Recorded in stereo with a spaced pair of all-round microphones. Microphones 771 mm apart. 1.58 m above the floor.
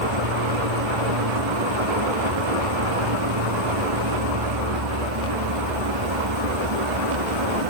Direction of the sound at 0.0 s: 35° right (ahead or behind).